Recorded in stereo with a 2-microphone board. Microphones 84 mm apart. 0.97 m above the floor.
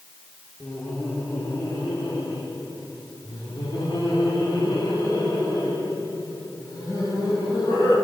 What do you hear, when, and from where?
0.6 s laughter: 25° left (ahead or behind), 3.5 m; by 7.9 s 40° left (ahead or behind), 8.5 m